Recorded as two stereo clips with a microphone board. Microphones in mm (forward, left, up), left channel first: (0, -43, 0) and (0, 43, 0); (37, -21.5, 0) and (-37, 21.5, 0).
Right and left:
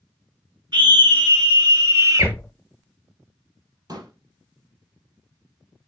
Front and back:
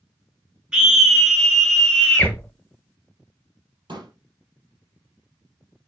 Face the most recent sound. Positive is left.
turn(degrees=130)